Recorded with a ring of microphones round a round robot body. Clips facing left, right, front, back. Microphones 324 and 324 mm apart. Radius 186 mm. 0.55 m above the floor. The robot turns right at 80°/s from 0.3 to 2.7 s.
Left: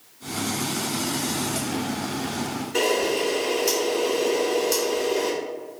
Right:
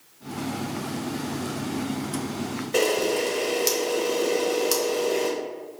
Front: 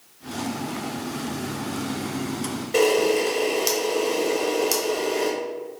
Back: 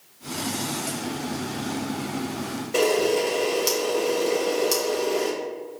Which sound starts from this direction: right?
A camera shutter, at 2.7 s.